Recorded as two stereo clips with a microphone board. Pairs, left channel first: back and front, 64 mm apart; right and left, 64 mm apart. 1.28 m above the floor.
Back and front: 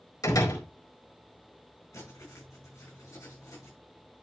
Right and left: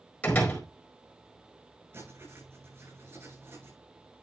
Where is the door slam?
160° right, 4.5 m.